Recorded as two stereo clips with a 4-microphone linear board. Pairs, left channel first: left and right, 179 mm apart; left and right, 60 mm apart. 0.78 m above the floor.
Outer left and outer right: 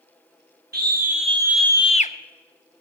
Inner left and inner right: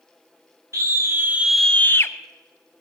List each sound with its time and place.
0.7 s a scream: 60° right (ahead or behind), 1.2 m; by 2.1 s 45° left (ahead or behind), 0.9 m